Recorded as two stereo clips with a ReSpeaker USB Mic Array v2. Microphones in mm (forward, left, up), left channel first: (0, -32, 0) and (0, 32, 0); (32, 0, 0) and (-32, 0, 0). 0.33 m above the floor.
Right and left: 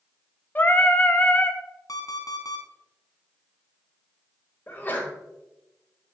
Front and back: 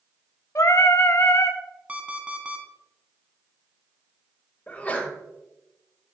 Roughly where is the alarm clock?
Right.